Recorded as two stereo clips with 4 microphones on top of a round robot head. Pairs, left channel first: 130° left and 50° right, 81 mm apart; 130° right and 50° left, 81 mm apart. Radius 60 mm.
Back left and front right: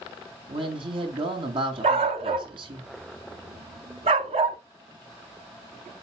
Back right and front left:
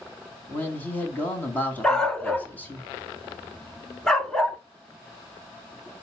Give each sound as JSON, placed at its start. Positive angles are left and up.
{"t": 0.5, "sound": "a man speaking", "azimuth_deg": -60, "distance_m": 3.5}
{"t": 1.8, "sound": "a dog barking", "azimuth_deg": -50, "distance_m": 1.4}